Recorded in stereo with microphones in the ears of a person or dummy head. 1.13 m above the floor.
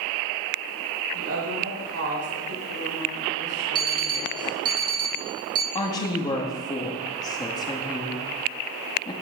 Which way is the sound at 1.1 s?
80° right.